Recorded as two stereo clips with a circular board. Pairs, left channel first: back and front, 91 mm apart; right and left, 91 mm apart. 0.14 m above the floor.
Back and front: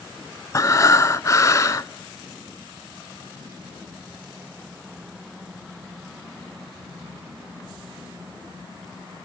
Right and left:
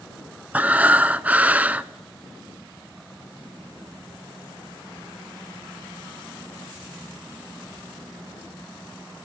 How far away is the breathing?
About 0.6 m.